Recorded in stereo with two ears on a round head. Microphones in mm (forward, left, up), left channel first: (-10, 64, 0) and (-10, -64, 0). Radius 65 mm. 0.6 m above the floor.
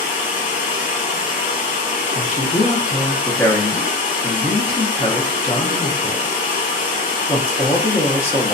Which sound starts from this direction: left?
Running water, at 0.0 s.